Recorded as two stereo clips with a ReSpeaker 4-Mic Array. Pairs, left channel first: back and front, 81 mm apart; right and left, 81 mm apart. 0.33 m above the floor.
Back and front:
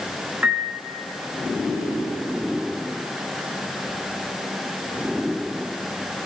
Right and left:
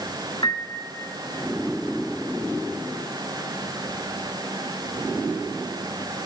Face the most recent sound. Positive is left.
turn(degrees=-70)